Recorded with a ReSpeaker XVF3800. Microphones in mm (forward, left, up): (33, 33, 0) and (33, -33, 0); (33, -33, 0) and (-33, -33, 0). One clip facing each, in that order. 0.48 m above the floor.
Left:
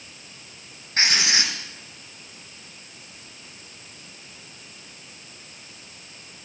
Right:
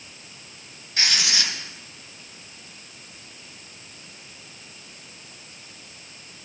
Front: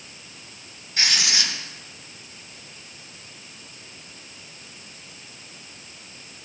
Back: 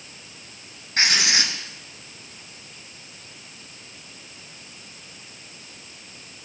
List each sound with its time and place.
1.0 s writing: 140° left, 2.5 m